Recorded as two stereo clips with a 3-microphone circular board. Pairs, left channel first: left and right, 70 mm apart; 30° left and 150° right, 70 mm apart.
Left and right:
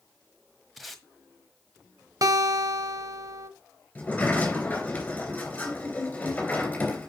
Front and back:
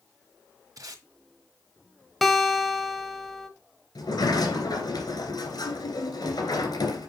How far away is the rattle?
I don't hear a rattle.